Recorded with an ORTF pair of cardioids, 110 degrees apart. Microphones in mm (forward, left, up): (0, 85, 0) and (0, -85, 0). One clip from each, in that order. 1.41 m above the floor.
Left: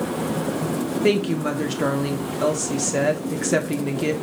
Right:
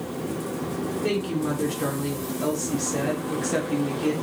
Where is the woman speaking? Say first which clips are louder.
Left 6 dB; 35° left, 1.0 m.